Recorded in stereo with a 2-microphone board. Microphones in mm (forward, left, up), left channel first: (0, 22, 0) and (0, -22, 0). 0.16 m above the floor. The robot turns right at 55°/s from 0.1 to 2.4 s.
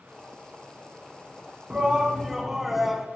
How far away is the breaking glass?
No breaking glass in this recording.